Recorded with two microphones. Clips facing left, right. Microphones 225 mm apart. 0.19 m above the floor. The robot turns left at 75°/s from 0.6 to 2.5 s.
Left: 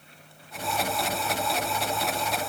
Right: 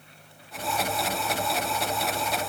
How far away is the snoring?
I don't hear snoring.